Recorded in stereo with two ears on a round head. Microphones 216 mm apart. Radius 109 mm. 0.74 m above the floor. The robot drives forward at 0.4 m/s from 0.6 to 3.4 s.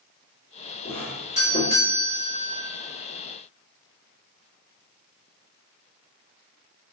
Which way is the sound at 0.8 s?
30° left (ahead or behind).